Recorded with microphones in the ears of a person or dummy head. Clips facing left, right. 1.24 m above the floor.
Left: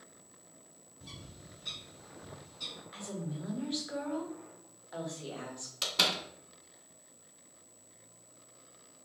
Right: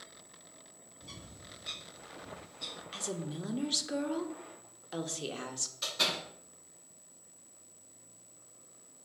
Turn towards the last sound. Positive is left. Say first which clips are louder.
# left 2 dB
turn(degrees=85)